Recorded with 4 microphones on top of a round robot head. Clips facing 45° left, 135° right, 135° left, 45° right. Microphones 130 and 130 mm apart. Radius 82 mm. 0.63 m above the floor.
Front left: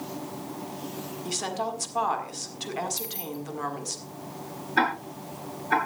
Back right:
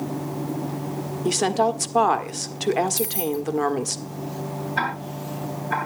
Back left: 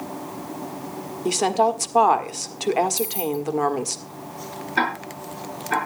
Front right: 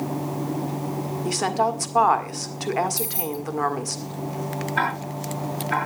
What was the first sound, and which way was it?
A woman speaking, 155° right.